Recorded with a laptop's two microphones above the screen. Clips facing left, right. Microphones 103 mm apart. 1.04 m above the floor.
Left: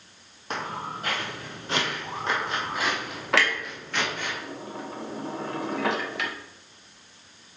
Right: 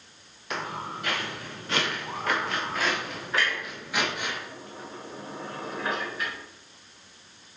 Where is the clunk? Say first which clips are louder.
Left 4 dB; 80° left, 0.7 m.